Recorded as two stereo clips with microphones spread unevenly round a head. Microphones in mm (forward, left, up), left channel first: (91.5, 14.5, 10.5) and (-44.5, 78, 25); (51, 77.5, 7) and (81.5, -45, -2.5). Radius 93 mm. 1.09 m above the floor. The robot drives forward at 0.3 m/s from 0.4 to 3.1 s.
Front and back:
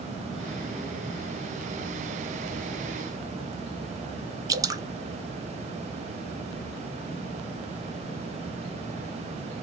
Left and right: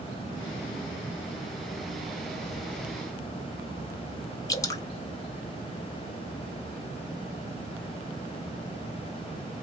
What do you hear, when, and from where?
4.5 s dripping: 115° left, 0.6 m